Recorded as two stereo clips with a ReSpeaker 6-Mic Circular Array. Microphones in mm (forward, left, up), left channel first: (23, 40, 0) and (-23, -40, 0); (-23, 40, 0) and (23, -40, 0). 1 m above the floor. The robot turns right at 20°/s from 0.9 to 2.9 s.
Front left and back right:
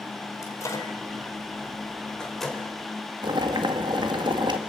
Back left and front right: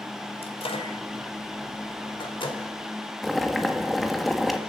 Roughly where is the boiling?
Behind right.